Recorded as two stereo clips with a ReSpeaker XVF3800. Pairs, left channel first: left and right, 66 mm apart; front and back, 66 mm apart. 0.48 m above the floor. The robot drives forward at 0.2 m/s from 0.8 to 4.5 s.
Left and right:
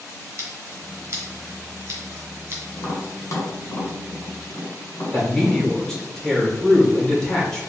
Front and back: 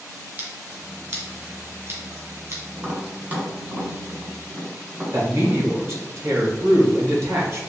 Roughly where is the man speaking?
Behind.